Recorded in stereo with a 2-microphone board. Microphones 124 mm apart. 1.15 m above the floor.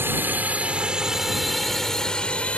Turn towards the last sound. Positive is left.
turn(degrees=10)  # may be behind; listen again after turning